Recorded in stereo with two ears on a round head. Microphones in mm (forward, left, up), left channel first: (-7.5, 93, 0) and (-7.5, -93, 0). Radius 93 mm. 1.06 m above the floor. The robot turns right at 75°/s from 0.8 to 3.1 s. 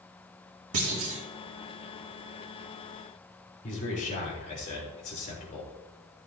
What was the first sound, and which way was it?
A clunk, 95° right.